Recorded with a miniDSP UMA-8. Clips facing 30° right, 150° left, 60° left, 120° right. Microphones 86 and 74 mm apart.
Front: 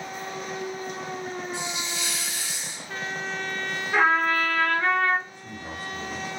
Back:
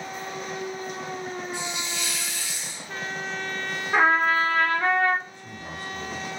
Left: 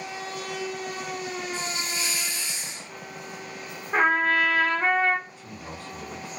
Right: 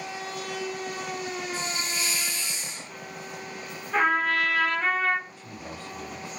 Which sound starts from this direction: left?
A trumpet, at 3.9 s.